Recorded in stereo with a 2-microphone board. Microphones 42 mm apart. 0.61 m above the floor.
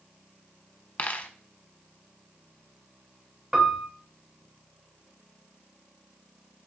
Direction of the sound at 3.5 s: 15° right (ahead or behind).